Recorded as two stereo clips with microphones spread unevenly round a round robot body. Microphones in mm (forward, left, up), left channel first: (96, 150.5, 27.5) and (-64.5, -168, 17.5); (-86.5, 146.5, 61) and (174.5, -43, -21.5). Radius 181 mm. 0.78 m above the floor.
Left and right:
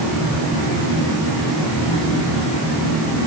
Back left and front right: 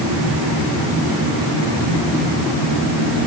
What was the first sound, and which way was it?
Only background noise.